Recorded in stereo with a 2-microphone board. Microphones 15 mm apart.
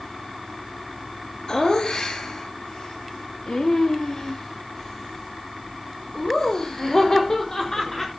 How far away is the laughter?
About 3 m.